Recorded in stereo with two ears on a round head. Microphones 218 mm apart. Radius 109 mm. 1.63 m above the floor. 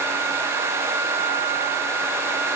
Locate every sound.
Only background noise.